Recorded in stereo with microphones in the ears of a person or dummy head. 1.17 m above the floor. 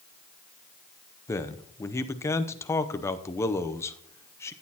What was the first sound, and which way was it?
A man speaking, 15° left (ahead or behind).